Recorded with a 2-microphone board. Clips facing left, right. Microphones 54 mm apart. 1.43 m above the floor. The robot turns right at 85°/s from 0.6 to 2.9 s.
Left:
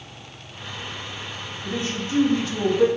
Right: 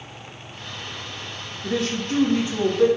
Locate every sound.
1.6 s a man speaking: 95° right, 1.7 m; by 2.9 s 10° left, 1.7 m